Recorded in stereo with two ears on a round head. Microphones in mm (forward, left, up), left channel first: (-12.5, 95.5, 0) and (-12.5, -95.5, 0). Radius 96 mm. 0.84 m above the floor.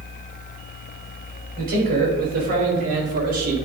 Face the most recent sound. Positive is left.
turn(degrees=-40)  # may be behind; listen again after turning